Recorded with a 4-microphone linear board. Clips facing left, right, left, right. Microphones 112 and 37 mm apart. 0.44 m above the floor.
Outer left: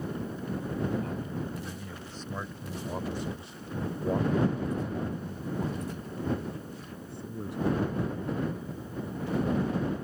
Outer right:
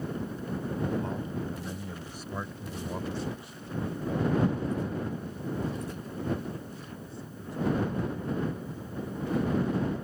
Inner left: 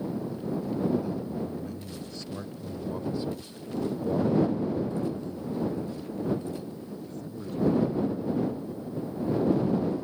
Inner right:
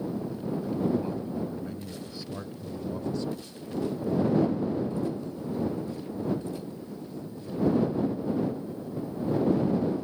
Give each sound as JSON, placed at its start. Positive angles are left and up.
{"t": 1.0, "sound": "a man speaking", "side_deg": -30}